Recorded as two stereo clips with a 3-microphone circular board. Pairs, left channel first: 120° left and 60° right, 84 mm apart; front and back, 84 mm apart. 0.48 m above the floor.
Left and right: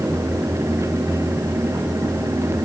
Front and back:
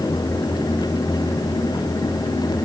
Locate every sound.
Only background noise.